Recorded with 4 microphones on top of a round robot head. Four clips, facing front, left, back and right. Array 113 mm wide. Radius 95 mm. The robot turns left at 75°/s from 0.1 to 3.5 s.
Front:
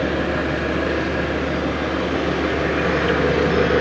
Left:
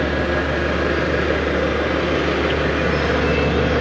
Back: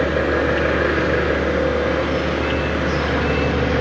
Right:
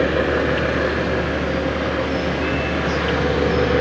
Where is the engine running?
110° right, 6 m; by 3.8 s 5° right, 6 m.